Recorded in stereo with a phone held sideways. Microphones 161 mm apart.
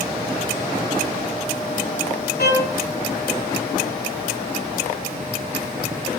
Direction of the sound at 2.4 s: 85° left.